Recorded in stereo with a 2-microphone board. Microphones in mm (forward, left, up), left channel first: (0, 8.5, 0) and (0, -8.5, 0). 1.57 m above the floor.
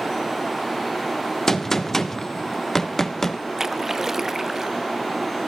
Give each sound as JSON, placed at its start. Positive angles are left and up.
{"t": 1.5, "sound": "a gunshot", "side_deg": 25, "distance_m": 1.0}
{"t": 3.6, "sound": "a splash", "side_deg": -25, "distance_m": 0.6}